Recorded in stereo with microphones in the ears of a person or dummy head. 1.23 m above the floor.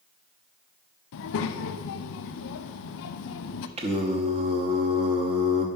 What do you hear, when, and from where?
1.1 s a child speaking: 60° left (ahead or behind), 0.6 m
3.8 s singing: 30° right (ahead or behind), 0.8 m